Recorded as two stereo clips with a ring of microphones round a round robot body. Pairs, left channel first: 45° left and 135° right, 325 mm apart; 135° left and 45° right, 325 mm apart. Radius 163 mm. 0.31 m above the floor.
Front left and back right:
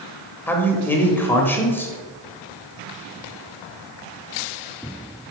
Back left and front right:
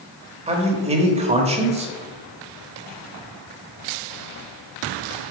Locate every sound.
0.5 s a man speaking: 25° right, 0.9 m